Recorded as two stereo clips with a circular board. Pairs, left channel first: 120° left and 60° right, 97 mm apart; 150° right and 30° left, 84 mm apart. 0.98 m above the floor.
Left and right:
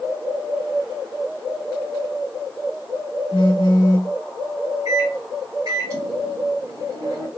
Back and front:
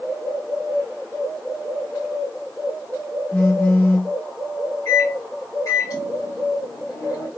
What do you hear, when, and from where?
3.3 s a phone buzzing: 145° left, 1.2 m
4.8 s a microwave: 110° right, 1.7 m